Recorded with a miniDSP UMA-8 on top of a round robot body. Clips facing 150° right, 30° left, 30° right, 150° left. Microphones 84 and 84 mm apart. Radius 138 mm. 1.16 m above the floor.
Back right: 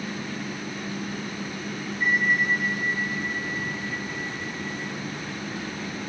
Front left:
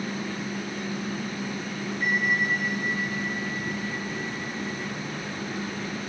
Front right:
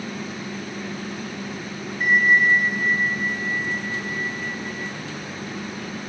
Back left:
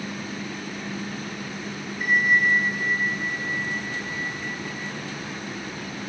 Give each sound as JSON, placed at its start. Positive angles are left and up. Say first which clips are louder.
{"t": 2.0, "sound": "a bell", "louder": "back right 2 dB, front right 3 dB", "azimuth_deg": 20, "distance_m": 1.2}